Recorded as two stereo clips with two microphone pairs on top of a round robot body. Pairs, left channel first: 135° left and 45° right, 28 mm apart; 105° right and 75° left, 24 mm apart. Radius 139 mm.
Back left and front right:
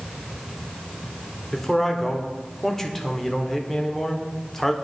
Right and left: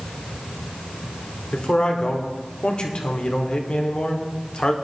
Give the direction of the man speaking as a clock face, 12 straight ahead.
5 o'clock.